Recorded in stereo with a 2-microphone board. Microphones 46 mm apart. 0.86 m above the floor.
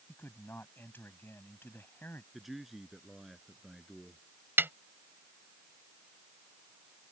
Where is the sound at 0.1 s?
55° left (ahead or behind).